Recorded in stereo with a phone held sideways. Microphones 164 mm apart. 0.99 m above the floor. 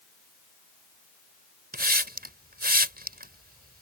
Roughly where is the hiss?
Right.